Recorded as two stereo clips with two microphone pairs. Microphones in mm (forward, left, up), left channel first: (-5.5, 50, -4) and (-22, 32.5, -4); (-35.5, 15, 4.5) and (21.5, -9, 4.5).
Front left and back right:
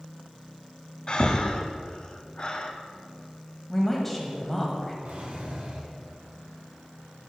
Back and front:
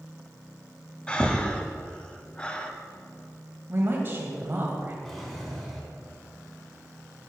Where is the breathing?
90° left, 0.6 m.